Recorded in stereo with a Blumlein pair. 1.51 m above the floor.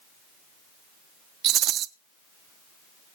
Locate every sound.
1.4 s a rattle: 30° right, 0.5 m